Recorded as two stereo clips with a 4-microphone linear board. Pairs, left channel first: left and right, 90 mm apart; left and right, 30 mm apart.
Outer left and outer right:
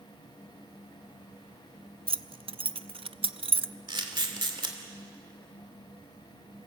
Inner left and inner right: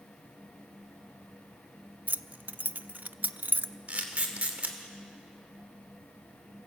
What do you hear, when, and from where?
2.1 s keys jangling: 80° right, 0.5 m
3.9 s a camera shutter: 55° right (ahead or behind), 2.5 m